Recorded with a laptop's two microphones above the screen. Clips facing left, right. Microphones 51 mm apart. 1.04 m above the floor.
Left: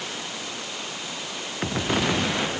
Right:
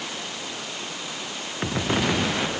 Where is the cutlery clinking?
I don't hear cutlery clinking.